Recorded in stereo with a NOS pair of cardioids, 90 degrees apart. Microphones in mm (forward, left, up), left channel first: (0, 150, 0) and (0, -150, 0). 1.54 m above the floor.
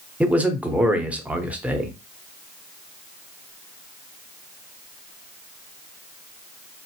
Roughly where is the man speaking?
Ahead.